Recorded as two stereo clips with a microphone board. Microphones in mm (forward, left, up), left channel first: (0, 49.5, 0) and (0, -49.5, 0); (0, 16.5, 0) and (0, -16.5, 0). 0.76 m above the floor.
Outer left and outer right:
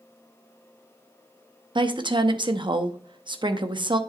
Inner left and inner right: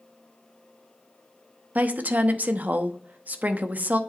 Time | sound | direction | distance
1.8 | a woman speaking | 50° right (ahead or behind) | 0.7 m